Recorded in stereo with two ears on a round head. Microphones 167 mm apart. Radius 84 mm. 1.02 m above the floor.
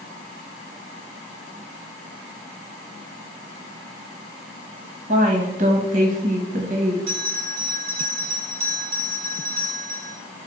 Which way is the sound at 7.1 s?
35° right (ahead or behind).